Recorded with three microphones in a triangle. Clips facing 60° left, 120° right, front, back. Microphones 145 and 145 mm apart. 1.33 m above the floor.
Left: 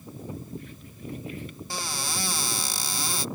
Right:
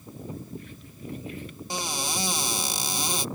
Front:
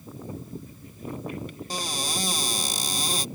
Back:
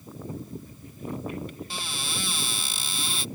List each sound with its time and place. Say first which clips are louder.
1.7 s a cupboard door: right 4 dB, front 5 dB; 50° right